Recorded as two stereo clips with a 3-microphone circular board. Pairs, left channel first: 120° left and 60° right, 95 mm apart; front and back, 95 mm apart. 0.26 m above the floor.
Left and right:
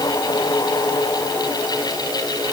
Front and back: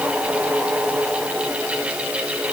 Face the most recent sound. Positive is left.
No sound to turn to.